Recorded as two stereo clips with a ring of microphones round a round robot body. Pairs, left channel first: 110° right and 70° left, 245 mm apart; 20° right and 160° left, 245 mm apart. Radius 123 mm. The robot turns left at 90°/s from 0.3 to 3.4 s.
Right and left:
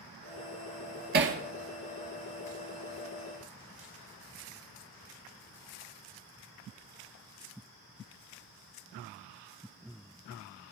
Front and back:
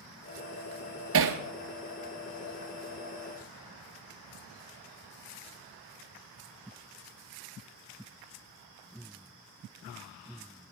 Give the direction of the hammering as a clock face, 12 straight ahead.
8 o'clock.